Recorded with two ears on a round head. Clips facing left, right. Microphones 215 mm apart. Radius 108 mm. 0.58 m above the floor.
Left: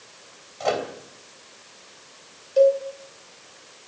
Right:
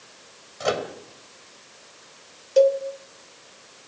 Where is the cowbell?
65° right (ahead or behind), 2 m.